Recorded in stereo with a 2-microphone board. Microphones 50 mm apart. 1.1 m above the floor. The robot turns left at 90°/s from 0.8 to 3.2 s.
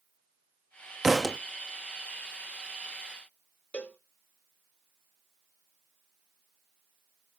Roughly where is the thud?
Behind.